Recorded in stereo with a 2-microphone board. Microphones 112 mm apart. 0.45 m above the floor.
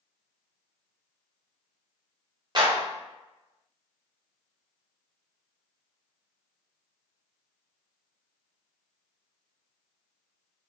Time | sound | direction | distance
2.5 | a clap | 45° right (ahead or behind) | 1.5 m